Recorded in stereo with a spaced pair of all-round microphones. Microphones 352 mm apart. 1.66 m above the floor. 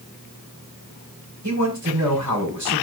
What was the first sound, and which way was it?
A man speaking, 50° right (ahead or behind).